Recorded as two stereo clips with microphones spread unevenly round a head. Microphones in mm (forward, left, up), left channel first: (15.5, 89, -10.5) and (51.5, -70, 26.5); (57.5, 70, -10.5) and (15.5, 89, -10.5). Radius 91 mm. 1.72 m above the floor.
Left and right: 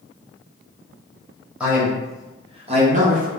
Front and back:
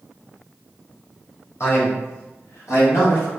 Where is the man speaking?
5° left, 1.3 m; by 3.3 s 45° right, 1.0 m.